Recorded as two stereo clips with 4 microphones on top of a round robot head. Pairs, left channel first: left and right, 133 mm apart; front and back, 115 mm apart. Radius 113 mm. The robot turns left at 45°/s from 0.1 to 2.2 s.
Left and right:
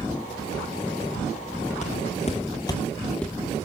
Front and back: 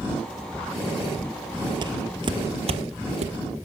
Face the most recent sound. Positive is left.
turn(degrees=175)